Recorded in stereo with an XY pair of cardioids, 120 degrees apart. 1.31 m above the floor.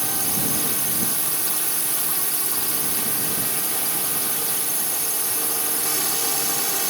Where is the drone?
5° right.